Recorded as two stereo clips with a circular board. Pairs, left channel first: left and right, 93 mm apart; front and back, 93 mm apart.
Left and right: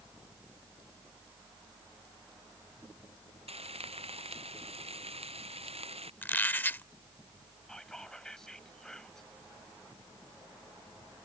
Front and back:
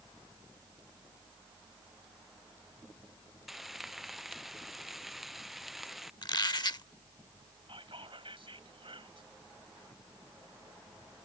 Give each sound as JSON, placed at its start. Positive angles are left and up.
{"t": 3.5, "sound": "frying", "azimuth_deg": -90}
{"t": 6.2, "sound": "a squeak", "azimuth_deg": 25}
{"t": 7.7, "sound": "whispering", "azimuth_deg": 175}